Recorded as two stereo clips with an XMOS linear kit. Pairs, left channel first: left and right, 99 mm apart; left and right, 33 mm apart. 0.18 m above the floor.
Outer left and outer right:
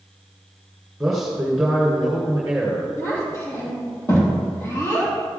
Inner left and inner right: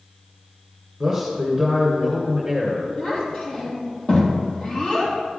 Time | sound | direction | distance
1.0 | a man speaking | 5° right (ahead or behind) | 1.9 m
3.0 | a child speaking | 30° left (ahead or behind) | 4 m